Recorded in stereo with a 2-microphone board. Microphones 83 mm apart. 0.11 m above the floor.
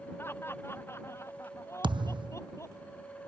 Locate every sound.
0.2 s laughter: 30° left (ahead or behind); by 2.8 s 35° left (ahead or behind)
1.8 s a thud: 80° right